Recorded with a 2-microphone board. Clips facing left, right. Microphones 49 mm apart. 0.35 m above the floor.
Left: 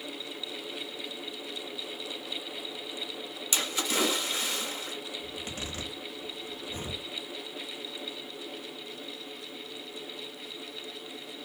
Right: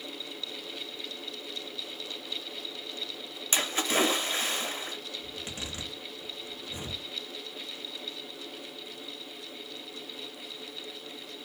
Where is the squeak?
I don't hear a squeak.